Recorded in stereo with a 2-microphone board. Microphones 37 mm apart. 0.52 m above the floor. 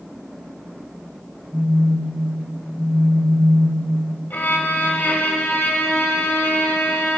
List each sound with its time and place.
1.5 s a phone buzzing: 20° left (ahead or behind), 1.7 m
4.3 s a violin: 65° left (ahead or behind), 0.8 m